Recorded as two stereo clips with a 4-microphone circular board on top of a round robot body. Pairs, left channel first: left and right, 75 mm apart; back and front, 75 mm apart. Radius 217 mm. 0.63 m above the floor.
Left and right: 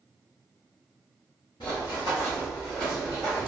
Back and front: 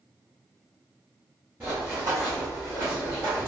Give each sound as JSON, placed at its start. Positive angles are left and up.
{"t": 1.6, "sound": "running footsteps", "azimuth_deg": 70, "distance_m": 1.0}